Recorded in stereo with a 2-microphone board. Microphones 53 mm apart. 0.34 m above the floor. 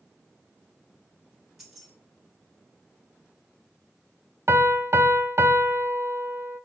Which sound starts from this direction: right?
A piano, at 4.5 s.